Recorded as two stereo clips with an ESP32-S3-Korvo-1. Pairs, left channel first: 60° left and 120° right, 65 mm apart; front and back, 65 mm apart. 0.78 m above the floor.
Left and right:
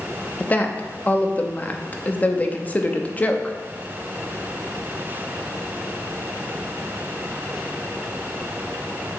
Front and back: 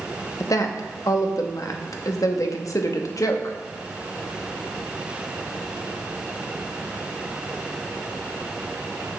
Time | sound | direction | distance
0.4 | a woman speaking | straight ahead | 0.7 m